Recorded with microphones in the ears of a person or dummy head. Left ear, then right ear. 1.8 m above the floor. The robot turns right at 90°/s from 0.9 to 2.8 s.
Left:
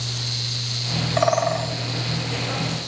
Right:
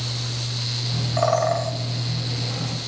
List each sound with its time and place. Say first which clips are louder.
1.2 s a bird: even; 145° left, 1.1 m; by 1.7 s 165° right, 1.1 m